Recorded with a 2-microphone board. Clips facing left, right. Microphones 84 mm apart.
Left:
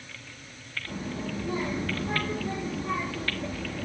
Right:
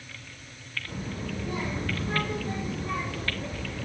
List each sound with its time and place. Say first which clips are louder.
0.9 s a child speaking: left 2 dB; 25° left (ahead or behind), 3.5 m